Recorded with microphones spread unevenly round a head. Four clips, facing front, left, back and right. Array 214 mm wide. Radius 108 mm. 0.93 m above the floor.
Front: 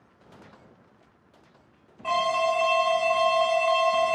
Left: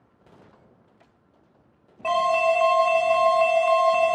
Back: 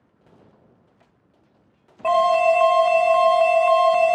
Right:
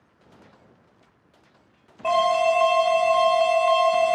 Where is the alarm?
175° right, 1.9 m.